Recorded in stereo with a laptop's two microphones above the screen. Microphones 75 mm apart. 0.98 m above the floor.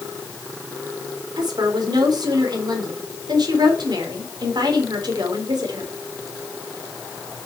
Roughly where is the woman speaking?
Right.